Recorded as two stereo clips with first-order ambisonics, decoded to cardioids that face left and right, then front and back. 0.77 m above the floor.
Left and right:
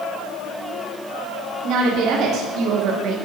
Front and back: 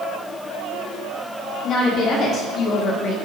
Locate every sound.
1.6 s a woman speaking: 55° right, 2 m; by 3.1 s 50° right, 1.2 m